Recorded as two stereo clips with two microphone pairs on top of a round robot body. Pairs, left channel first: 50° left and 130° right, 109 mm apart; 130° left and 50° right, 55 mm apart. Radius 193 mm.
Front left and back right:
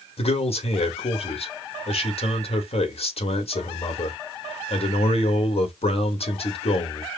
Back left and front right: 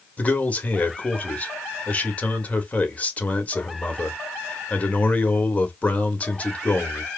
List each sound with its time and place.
0.2 s a man speaking: 65° left, 1.8 m